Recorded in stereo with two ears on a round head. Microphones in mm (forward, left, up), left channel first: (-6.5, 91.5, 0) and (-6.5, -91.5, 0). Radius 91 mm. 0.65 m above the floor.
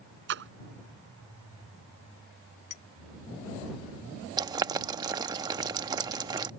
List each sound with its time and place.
0.3 s a splash: 60° right (ahead or behind)
2.7 s a clink: 40° left (ahead or behind)
4.4 s boiling: 20° right (ahead or behind)